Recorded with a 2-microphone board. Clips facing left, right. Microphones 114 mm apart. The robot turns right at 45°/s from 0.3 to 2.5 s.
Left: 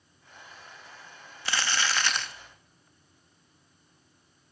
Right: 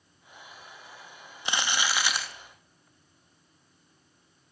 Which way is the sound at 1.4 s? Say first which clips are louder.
Even; 20° right (ahead or behind).